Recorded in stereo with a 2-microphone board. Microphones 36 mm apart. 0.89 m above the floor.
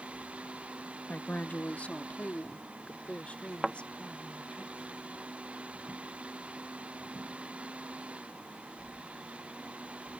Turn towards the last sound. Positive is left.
turn(degrees=-15)  # may be behind; listen again after turning